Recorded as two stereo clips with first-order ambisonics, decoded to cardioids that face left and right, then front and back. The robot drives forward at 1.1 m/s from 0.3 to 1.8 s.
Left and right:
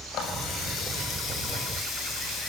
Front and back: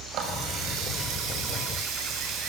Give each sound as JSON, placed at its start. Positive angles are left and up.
{"t": 0.1, "sound": "a running tap", "azimuth_deg": 135, "distance_m": 7.0}